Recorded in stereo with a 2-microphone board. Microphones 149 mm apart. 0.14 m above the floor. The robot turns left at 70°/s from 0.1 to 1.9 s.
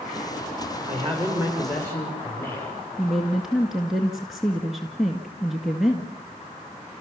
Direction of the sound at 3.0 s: 5° right (ahead or behind).